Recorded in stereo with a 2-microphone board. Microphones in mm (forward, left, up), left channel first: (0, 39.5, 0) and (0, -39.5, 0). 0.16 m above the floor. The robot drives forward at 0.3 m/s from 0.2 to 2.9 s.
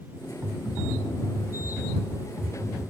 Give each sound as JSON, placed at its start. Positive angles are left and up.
{"t": 0.4, "sound": "typing on a keyboard", "side_deg": -30, "distance_m": 3.5}